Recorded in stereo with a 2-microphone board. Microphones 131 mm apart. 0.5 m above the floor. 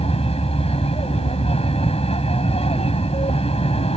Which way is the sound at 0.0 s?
50° left (ahead or behind).